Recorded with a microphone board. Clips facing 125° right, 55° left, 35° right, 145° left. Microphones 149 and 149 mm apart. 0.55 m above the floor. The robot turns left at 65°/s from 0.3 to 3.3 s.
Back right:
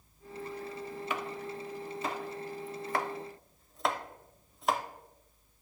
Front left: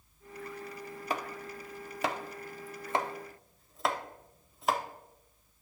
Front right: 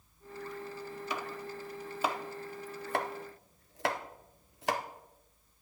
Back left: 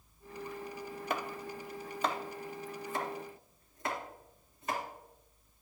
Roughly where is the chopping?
Left.